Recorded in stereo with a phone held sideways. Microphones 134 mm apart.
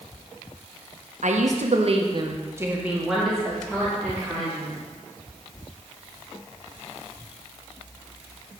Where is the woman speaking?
70° right (ahead or behind), 0.9 m; by 4.8 s 15° left (ahead or behind), 2 m.